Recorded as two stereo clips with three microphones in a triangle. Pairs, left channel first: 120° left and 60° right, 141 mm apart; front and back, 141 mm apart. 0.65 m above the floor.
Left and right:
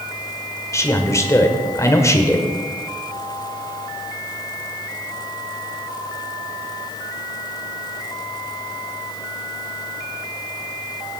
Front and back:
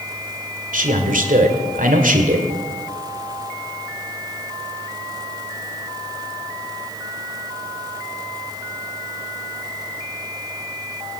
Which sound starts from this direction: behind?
A man speaking, at 0.7 s.